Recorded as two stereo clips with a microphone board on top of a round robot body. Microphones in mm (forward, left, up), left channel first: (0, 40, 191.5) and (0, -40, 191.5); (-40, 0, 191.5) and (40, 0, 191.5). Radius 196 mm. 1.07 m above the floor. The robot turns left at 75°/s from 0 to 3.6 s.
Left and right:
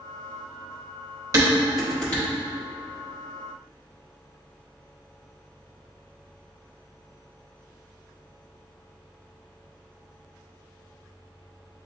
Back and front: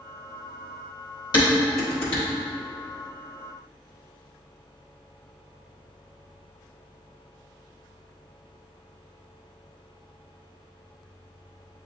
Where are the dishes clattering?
140° right, 1.3 m; by 2.2 s 150° left, 1.3 m.